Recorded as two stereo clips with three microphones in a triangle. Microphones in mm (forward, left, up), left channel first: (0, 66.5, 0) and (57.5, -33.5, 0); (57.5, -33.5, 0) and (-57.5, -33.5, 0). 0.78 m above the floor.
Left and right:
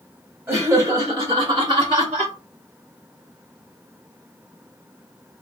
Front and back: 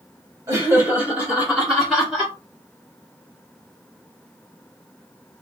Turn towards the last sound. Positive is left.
turn(degrees=-80)